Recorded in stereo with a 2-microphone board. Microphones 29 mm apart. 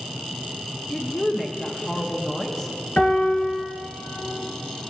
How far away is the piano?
About 1.9 m.